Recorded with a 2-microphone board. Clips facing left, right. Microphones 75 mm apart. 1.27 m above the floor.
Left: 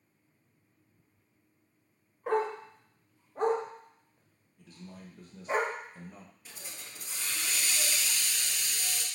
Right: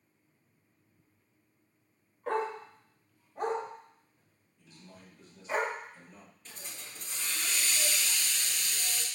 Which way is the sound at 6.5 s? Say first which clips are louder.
Right 2 dB; 5° left (ahead or behind).